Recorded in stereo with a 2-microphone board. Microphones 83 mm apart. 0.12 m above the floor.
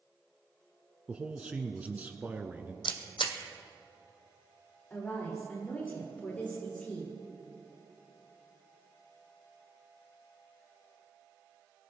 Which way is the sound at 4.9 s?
20° left (ahead or behind).